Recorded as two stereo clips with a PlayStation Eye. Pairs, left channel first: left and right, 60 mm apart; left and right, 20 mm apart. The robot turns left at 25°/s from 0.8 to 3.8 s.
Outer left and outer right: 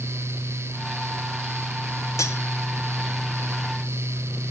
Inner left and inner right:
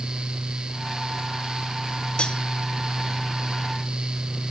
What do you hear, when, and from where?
2.2 s cutlery clinking: 60° left (ahead or behind), 1.3 m; by 2.4 s 55° left (ahead or behind), 1.3 m